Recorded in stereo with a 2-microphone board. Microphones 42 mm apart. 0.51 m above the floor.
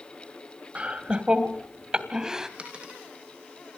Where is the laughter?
30° right (ahead or behind), 3 m; by 2.5 s 15° right (ahead or behind), 3.5 m.